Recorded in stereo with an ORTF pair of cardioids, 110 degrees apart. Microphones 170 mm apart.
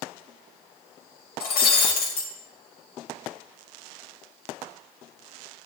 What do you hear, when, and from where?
1.4 s breaking glass: 70° left, 1.6 m